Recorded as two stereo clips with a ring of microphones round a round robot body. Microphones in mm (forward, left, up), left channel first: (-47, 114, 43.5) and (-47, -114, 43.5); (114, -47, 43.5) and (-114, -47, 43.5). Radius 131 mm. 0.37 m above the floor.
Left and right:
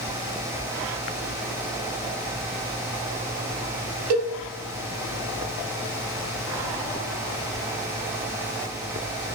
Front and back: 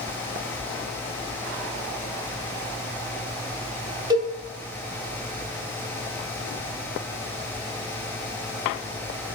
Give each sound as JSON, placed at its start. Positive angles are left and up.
{"t": 4.1, "sound": "a cowbell", "azimuth_deg": -110, "distance_m": 0.8}